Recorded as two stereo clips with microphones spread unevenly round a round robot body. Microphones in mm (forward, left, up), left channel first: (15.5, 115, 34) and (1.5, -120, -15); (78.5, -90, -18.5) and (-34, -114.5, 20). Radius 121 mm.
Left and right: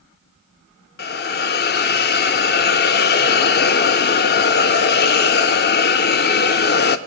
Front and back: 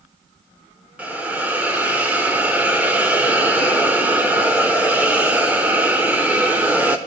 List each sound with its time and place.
1.0 s a hiss: 80° left, 0.5 m